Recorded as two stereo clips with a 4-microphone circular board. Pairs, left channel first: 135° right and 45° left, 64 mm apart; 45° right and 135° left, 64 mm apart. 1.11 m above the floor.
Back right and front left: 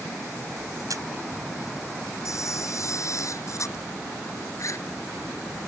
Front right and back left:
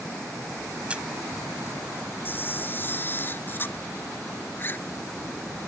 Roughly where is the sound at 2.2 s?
Right.